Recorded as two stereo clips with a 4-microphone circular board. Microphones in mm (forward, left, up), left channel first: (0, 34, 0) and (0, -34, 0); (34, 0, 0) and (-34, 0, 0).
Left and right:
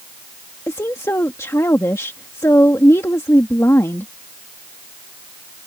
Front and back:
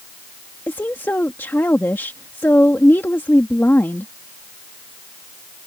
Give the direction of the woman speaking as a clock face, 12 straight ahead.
10 o'clock.